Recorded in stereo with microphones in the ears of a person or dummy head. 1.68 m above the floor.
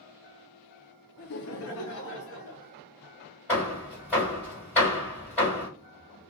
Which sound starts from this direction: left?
Laughter, at 1.2 s.